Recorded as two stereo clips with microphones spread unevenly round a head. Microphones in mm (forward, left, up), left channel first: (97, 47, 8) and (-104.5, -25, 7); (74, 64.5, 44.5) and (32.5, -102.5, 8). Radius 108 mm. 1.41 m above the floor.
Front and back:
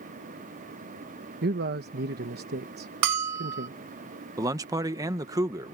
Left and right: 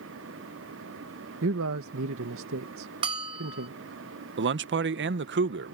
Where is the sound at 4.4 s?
85° right.